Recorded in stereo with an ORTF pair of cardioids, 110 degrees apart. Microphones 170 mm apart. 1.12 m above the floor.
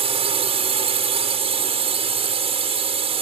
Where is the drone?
35° right.